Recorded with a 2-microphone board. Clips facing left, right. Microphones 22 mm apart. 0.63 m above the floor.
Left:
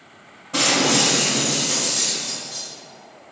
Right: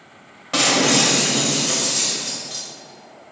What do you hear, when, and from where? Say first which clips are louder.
0.5 s breaking glass: right 1 dB; 60° right (ahead or behind), 1.8 m